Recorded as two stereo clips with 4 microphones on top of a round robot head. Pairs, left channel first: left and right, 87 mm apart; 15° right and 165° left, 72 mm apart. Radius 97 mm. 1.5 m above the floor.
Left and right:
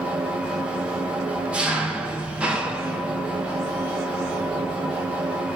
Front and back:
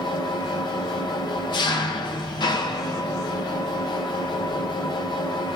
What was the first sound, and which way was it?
An engine running, 10° right.